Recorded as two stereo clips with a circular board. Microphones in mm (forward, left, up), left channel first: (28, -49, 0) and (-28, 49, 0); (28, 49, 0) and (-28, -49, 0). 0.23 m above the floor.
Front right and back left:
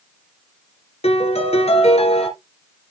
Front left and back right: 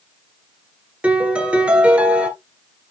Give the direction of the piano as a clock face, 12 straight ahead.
1 o'clock.